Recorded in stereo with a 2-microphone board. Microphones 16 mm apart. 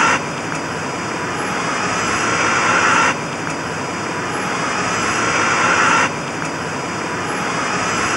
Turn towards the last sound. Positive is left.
turn(degrees=-20)  # may be behind; listen again after turning